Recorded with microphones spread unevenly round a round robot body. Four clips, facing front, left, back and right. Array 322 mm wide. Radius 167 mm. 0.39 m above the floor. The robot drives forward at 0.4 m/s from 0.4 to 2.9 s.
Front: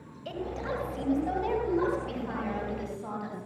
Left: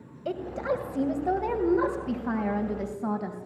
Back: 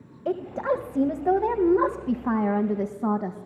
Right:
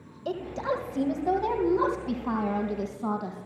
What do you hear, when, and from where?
0.2 s a woman speaking: straight behind, 3 m